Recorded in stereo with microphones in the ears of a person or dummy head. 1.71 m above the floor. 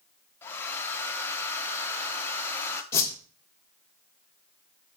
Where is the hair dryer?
15° left (ahead or behind), 0.6 m.